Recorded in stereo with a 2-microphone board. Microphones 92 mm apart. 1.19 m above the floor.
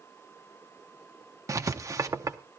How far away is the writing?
About 0.8 m.